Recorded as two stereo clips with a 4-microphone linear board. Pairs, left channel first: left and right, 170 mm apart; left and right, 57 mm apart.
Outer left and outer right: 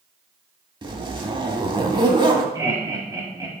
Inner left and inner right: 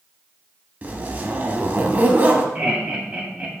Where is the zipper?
30° right (ahead or behind), 0.9 m.